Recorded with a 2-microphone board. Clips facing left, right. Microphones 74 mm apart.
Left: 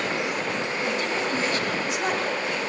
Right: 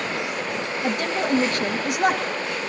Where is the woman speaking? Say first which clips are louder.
Right 5 dB; 55° right (ahead or behind), 2.5 m.